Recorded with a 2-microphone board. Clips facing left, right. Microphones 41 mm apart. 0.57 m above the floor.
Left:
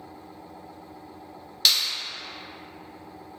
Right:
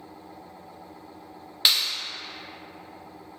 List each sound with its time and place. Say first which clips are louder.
1.6 s a clap: even; 25° right (ahead or behind), 1.0 m